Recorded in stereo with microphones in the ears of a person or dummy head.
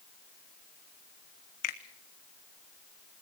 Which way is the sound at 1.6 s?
50° left (ahead or behind).